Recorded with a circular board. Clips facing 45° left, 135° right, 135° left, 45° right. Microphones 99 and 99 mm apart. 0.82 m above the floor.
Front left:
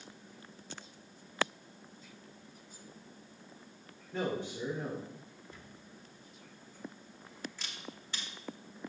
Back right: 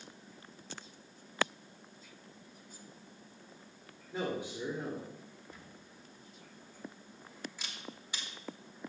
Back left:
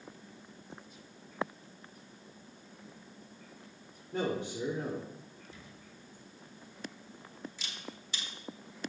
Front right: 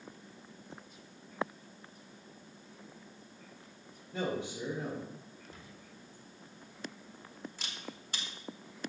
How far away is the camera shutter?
About 1.4 m.